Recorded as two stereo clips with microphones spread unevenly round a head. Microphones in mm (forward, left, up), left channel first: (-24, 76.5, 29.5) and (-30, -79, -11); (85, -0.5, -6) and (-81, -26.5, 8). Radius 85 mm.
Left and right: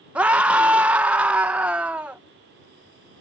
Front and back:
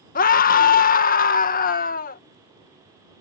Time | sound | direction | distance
0.1 | a scream | 20° right | ?